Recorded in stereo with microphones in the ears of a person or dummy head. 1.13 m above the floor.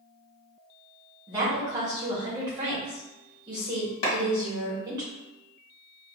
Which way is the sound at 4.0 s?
60° left (ahead or behind).